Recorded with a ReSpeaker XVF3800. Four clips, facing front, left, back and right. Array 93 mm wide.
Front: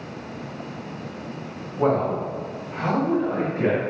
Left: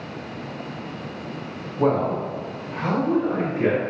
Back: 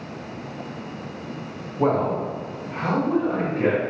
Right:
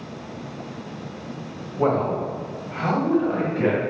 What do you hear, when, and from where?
1.8 s a man speaking: 60° right, 1.4 m; by 3.8 s 95° right, 2.0 m